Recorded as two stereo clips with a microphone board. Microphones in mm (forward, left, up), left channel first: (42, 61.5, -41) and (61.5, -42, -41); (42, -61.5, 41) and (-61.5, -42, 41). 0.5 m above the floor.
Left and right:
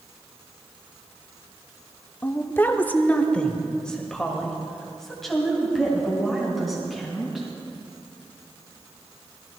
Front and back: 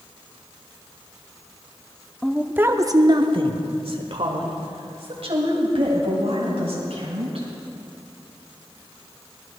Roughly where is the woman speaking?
Left.